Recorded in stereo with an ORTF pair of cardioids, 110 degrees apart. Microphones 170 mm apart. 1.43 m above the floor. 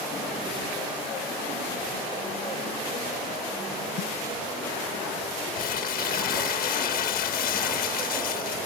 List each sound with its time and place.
4.0 s a snare drum: 60° left
5.5 s crumpling: 60° left